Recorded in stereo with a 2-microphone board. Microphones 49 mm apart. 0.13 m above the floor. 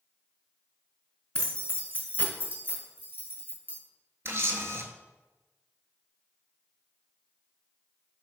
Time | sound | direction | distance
1.4 | keys jangling | 20° left (ahead or behind) | 0.8 m
4.2 | a camera shutter | 60° right (ahead or behind) | 0.6 m